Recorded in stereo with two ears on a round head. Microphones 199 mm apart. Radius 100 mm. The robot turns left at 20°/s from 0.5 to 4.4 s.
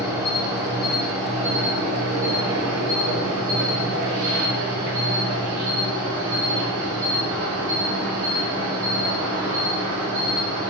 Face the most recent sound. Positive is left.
turn(degrees=-90)